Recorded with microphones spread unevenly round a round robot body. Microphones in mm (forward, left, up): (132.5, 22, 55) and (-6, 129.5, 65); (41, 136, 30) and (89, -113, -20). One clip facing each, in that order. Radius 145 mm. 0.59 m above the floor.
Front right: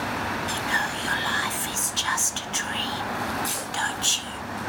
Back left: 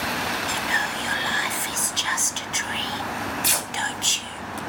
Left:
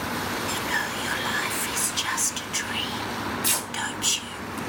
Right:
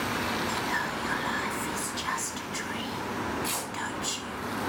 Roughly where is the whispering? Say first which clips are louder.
Back left 1 dB, left 1 dB; left.